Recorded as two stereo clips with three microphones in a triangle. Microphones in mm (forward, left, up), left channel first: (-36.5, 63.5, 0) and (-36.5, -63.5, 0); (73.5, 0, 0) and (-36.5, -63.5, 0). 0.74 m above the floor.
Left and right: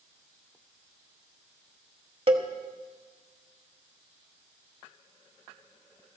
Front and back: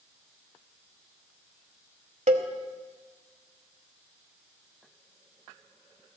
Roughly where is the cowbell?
Behind right.